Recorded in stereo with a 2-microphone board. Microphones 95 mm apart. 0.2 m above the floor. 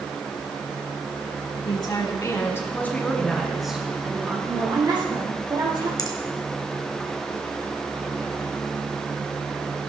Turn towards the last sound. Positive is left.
turn(degrees=40)  # may be behind; listen again after turning